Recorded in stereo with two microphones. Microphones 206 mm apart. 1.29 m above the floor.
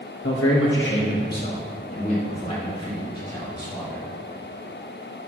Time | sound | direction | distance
0.2 | a man speaking | 85° left | 2 m